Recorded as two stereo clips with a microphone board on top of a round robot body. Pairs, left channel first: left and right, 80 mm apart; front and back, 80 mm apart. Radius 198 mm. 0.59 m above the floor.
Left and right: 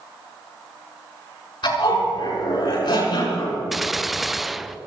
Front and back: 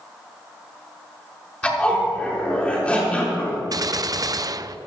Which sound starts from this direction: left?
A zipper, at 1.6 s.